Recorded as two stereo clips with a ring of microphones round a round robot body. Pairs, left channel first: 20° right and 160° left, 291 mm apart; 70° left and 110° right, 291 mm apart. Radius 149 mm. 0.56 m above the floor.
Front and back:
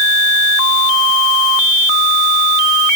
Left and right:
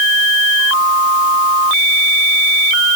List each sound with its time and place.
Only background noise.